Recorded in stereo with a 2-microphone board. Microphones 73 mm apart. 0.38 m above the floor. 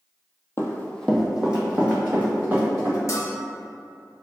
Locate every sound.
0.6 s running footsteps: 40° left (ahead or behind), 0.5 m; by 3.0 s 30° right (ahead or behind), 1.9 m
3.1 s a bell: 50° left (ahead or behind), 0.9 m